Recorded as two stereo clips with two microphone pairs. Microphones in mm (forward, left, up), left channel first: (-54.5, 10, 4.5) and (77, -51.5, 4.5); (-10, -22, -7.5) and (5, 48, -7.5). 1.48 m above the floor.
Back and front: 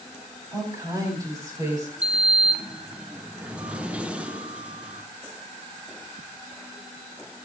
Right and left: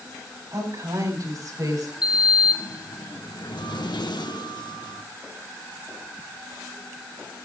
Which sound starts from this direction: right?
A sliding door, at 2.0 s.